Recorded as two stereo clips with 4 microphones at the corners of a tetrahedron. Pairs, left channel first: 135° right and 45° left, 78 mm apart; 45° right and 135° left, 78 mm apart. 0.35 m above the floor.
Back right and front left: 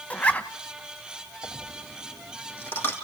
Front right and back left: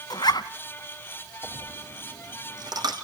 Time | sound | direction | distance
0.1 | a zipper | 65° right | 1.0 m
1.4 | a dropped coin | 165° left | 3.5 m